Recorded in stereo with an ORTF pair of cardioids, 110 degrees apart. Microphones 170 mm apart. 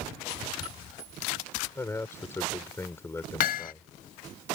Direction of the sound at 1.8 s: 15° left.